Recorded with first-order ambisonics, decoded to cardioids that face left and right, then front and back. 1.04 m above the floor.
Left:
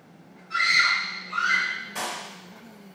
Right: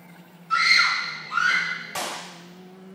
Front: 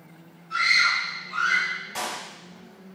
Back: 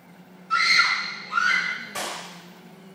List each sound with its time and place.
0.5 s a scream: 125° right, 1.2 m
1.9 s a clap: 90° right, 2.0 m